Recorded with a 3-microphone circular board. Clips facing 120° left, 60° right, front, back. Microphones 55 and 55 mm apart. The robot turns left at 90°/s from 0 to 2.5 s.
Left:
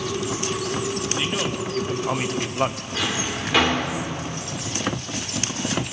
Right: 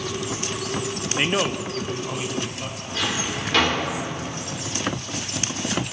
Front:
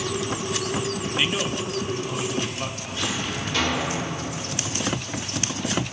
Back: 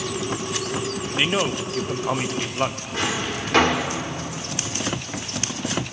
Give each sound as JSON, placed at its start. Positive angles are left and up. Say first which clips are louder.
{"t": 1.2, "sound": "a man speaking", "louder": "right 7 dB, back 4 dB", "azimuth_deg": -105, "distance_m": 0.7}
{"t": 2.9, "sound": "a drawer", "louder": "right 3 dB, back 2 dB", "azimuth_deg": -160, "distance_m": 3.0}